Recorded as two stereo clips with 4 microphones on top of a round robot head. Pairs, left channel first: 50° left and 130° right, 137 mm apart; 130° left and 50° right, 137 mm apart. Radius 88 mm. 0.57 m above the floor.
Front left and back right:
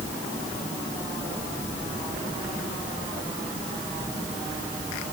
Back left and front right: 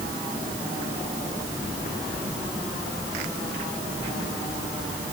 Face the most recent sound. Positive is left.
No sound to turn to.